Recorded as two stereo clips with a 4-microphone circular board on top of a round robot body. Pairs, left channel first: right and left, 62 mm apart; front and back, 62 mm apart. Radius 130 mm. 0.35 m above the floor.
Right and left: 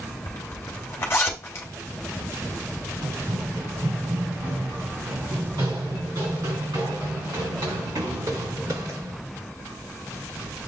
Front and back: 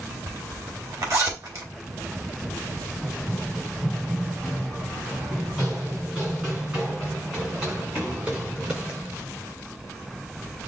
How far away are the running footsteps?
About 1.2 m.